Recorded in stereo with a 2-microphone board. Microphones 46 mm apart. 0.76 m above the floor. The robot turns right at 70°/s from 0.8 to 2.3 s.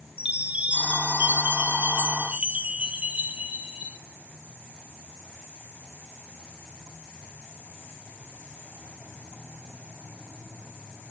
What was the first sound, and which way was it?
A chime, 145° right.